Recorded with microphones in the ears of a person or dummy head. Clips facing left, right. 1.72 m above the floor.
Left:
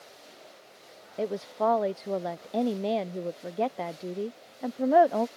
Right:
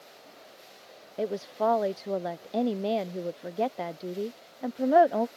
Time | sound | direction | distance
1.2 | a woman speaking | centre (ahead or behind) | ?